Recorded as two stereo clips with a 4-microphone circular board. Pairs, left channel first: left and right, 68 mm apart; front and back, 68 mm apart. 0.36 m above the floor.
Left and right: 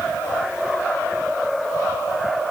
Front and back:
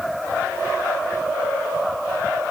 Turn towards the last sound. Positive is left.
No sound to turn to.